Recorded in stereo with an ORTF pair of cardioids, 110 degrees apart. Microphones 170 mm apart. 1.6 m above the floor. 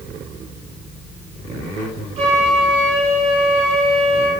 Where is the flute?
45° right, 1.2 m.